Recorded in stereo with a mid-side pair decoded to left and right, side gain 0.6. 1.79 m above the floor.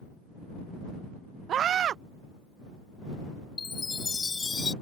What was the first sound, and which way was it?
A scream, 45° right.